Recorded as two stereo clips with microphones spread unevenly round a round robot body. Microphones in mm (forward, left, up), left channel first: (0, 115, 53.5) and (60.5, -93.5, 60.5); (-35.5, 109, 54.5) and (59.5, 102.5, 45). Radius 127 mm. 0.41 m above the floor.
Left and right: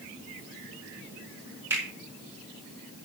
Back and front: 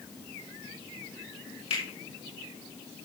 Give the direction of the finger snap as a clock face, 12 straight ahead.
5 o'clock.